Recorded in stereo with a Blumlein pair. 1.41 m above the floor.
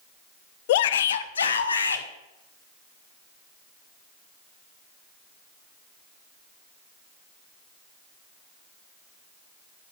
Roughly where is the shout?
Ahead left.